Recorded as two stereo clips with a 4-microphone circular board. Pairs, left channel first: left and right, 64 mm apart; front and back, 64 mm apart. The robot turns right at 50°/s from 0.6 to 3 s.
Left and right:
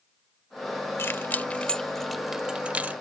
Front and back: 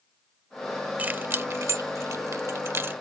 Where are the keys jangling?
120° left; by 3.0 s 140° right.